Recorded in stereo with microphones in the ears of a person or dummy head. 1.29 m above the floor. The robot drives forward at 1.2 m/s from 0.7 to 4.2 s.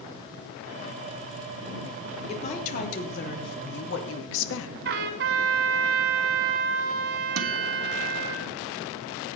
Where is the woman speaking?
35° left (ahead or behind), 4 m; by 4.8 s 70° left (ahead or behind), 2.5 m.